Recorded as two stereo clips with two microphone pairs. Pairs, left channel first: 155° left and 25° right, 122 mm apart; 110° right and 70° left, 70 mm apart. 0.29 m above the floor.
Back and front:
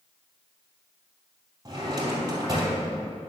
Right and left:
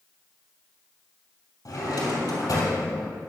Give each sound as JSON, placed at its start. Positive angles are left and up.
{"t": 1.6, "sound": "a drawer", "azimuth_deg": -85, "distance_m": 2.5}